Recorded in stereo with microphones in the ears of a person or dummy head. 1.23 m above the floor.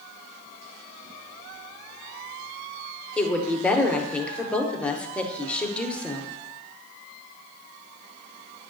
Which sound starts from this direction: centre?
A woman speaking, at 3.2 s.